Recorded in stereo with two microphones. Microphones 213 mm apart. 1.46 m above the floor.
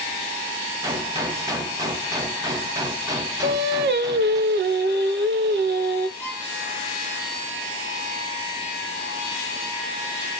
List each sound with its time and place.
0.8 s a gunshot: 15° right (ahead or behind), 0.6 m
3.4 s singing: 55° right (ahead or behind), 0.7 m
6.2 s a violin: 10° right (ahead or behind), 1.4 m